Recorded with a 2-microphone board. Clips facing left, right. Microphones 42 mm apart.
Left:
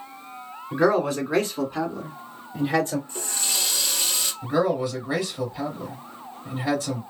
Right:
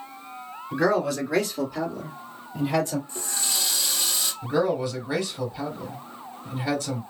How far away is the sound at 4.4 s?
About 2.5 m.